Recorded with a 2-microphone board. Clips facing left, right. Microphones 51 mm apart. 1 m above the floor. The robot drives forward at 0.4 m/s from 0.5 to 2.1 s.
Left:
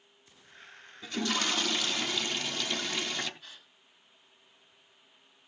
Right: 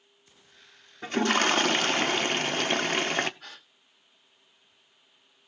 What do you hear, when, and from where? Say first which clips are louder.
1.0 s a toilet flushing: right 7 dB; 45° right (ahead or behind), 0.7 m
3.4 s a gasp: right 5 dB; 65° right (ahead or behind), 1.5 m